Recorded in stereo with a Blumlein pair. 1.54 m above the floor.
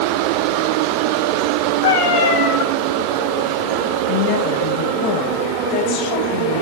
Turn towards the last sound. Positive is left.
turn(degrees=45)